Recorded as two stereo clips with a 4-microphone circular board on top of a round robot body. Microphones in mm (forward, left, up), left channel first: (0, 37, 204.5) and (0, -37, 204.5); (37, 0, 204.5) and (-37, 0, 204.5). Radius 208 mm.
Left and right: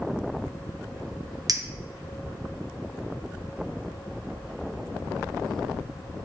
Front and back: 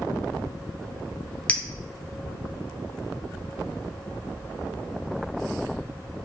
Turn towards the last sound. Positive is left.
turn(degrees=-75)